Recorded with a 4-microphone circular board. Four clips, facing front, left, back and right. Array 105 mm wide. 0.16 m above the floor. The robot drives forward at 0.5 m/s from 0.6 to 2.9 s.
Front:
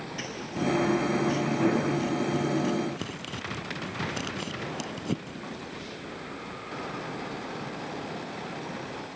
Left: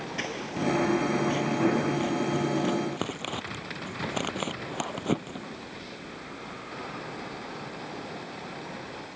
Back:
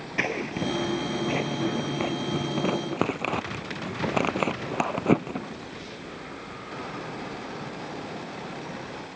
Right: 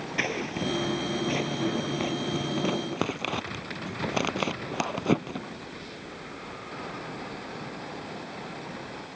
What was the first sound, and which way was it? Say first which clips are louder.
Scissors: right 1 dB, back 4 dB; 165° right.